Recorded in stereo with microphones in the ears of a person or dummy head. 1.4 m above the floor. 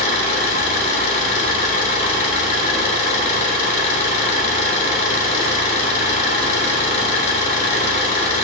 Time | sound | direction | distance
0.0 | an engine running | 40° left (ahead or behind) | 3.5 m